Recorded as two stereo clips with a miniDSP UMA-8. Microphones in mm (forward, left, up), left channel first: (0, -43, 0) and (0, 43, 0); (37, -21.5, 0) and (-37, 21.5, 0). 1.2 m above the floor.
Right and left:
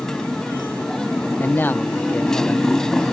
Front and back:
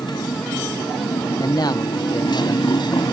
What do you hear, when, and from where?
0.0 s a motorcycle: 5° right
1.4 s a man speaking: 30° right